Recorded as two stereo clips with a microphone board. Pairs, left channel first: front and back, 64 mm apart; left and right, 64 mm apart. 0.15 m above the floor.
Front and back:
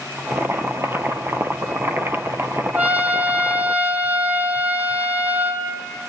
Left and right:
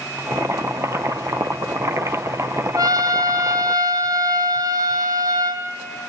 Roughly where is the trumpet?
Behind right.